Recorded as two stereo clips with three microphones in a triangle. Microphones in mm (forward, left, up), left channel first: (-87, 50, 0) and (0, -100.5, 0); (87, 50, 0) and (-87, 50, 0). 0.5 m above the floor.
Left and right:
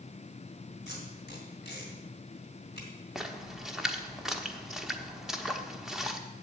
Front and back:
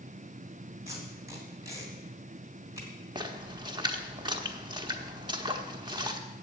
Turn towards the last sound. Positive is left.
turn(degrees=-145)